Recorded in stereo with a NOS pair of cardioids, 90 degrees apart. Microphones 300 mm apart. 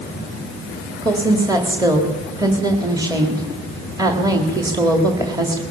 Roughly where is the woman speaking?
Ahead.